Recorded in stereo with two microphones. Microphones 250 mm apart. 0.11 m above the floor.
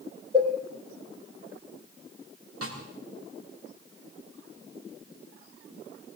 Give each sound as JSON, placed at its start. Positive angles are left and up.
{"t": 0.3, "sound": "a cowbell", "side_deg": -20, "distance_m": 3.5}
{"t": 2.6, "sound": "a snare drum", "side_deg": -65, "distance_m": 6.5}